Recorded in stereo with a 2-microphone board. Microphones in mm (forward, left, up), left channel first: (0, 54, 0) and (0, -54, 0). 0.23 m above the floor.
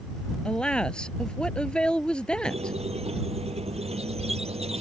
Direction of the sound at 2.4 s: 80° right.